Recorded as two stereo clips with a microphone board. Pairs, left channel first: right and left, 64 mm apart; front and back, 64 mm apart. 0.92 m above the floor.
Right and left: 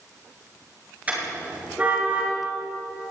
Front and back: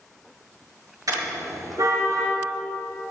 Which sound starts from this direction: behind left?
A car horn, at 1.1 s.